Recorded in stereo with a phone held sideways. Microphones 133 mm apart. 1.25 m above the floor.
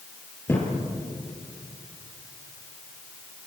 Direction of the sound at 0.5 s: 20° left (ahead or behind).